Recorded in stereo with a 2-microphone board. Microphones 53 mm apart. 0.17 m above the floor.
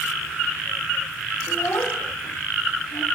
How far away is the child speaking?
About 4 m.